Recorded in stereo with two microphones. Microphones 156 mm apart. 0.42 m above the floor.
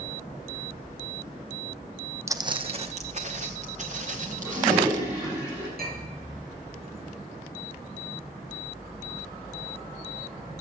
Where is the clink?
80° right, 5 m.